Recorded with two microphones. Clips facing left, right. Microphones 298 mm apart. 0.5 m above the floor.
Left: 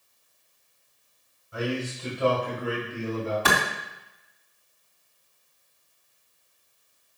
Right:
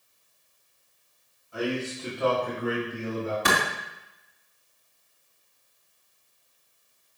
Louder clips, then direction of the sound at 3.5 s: Even; 15° right (ahead or behind).